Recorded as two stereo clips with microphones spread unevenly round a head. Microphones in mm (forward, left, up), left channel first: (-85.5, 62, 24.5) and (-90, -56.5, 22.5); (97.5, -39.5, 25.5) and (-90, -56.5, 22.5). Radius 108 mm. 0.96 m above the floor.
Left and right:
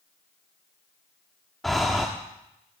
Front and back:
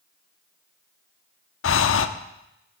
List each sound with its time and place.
1.6 s breathing: straight ahead, 0.9 m